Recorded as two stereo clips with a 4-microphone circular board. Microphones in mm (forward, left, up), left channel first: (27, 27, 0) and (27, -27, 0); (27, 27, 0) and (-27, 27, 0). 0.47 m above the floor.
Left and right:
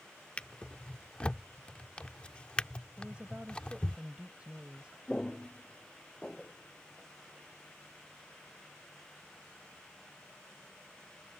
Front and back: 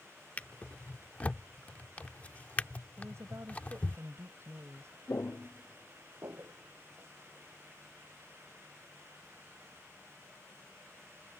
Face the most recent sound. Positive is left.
turn(degrees=170)